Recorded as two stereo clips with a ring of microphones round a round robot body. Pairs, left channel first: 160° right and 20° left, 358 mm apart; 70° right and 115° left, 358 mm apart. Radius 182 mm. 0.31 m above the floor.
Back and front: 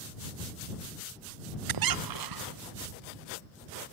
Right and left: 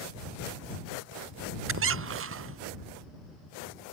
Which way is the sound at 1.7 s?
55° left.